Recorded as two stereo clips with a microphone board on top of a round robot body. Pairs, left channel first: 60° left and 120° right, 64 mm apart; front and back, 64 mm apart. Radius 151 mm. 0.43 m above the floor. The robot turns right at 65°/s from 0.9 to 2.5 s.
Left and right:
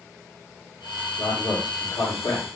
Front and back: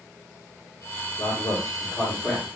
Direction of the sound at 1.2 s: Straight ahead.